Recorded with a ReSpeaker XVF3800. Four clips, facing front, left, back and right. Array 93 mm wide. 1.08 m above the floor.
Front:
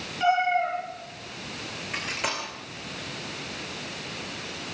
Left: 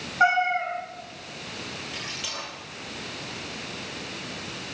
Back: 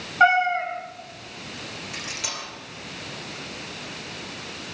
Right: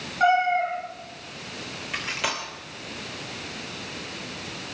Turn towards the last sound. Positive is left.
turn(degrees=-55)